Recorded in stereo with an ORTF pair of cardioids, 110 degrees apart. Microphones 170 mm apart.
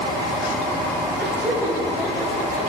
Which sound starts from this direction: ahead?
Laughter, at 1.2 s.